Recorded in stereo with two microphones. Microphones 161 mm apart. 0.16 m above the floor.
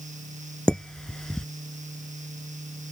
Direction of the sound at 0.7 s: 5° left (ahead or behind).